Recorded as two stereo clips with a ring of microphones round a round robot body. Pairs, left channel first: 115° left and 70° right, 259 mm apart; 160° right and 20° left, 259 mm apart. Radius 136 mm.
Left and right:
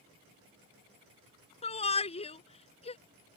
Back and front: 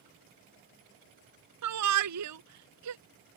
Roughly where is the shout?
Ahead left.